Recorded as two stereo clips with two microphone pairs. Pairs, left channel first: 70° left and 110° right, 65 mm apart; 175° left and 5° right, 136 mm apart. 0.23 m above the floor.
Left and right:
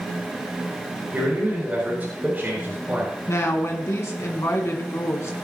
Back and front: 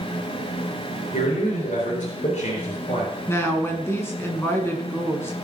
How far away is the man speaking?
About 4.5 m.